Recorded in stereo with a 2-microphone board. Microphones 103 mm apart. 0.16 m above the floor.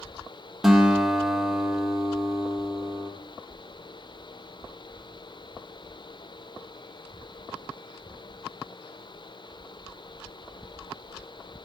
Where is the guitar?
Centre (ahead or behind), 5 m.